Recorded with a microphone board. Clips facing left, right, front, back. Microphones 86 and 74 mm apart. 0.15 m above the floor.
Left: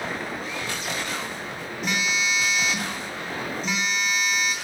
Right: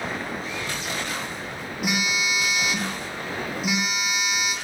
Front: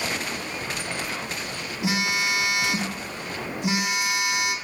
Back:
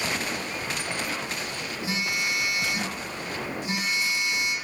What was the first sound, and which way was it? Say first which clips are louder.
A phone buzzing: even, front 5 dB; 10° right.